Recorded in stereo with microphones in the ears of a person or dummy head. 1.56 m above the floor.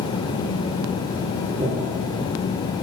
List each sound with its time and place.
1.6 s breathing: 15° right (ahead or behind), 1.1 m